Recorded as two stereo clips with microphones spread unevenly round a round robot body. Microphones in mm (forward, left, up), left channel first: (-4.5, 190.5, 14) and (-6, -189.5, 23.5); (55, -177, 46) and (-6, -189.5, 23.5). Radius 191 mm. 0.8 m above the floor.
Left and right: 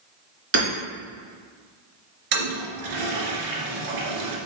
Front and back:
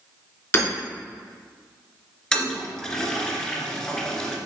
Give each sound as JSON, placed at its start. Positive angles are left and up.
{"t": 0.5, "sound": "hammering", "azimuth_deg": -30, "distance_m": 2.5}
{"t": 2.3, "sound": "a toilet flushing", "azimuth_deg": -60, "distance_m": 1.8}